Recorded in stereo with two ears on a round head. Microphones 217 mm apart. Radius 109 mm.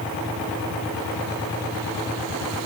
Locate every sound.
Only background noise.